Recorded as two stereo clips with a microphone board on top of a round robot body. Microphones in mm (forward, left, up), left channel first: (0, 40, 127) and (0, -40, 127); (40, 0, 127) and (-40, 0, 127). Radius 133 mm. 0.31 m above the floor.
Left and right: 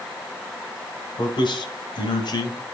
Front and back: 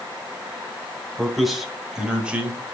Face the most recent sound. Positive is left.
turn(degrees=110)